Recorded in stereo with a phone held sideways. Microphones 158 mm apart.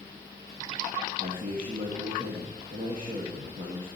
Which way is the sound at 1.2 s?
60° right (ahead or behind).